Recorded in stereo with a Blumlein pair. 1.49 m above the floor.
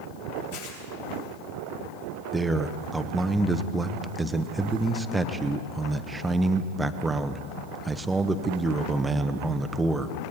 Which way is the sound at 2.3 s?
10° right.